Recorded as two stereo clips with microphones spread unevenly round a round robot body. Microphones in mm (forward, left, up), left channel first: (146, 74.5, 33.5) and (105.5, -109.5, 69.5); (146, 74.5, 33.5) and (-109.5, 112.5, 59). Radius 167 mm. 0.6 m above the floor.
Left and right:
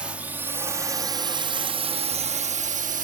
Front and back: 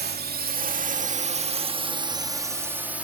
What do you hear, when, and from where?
0.0 s a drone: 160° left; by 3.0 s 95° right